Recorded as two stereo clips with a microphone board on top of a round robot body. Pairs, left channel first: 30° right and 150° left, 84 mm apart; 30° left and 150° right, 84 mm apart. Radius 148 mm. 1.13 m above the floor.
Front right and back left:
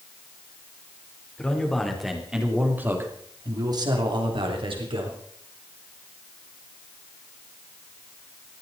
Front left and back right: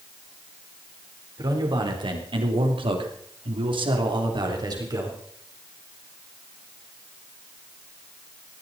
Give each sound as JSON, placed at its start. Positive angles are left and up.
{"t": 1.4, "sound": "a man speaking", "azimuth_deg": -110, "distance_m": 4.0}